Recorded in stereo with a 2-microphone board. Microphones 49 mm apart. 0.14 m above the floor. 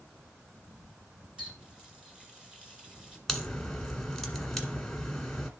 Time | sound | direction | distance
1.4 | a running tap | 15° right (ahead or behind) | 1.4 m
3.3 | a crack | 5° left (ahead or behind) | 1.6 m